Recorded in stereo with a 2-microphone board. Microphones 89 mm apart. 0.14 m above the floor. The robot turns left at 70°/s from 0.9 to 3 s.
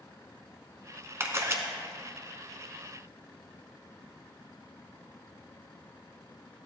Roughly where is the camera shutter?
Right.